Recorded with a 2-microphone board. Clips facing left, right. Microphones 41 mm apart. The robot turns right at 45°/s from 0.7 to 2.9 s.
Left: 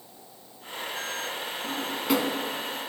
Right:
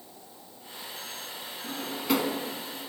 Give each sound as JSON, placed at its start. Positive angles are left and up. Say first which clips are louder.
{"t": 1.6, "sound": "a drawer", "louder": "left 1 dB", "side_deg": 15, "distance_m": 1.0}